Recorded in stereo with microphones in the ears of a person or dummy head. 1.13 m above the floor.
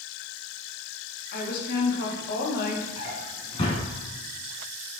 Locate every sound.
1.3 s a woman speaking: 55° left (ahead or behind), 1.6 m
3.0 s a drawer: 30° left (ahead or behind), 2.5 m